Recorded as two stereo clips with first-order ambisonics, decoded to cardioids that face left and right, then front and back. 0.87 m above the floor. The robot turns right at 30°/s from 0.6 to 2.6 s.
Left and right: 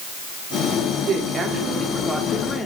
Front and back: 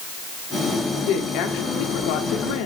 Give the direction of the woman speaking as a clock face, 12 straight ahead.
1 o'clock.